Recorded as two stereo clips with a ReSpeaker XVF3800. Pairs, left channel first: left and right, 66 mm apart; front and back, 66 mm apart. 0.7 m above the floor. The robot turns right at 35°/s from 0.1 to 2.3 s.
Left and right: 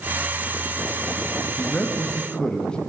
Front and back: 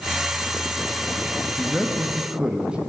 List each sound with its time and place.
1.6 s a man speaking: 110° left, 0.7 m; by 2.8 s 135° left, 0.7 m